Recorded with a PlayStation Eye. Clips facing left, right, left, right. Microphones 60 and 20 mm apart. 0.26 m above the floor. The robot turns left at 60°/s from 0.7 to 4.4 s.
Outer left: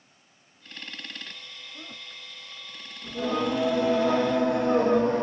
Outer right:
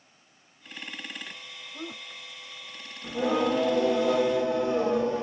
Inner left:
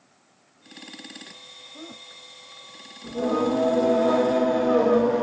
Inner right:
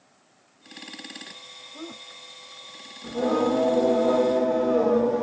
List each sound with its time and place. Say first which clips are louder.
1.7 s a woman speaking: outer right 6 dB, inner right 2 dB; 25° right (ahead or behind), 1.5 m; by 2.2 s 35° right (ahead or behind), 1.5 m
3.0 s singing: outer right 2 dB, inner right 1 dB; 155° right, 0.7 m; by 5.2 s 125° left, 0.7 m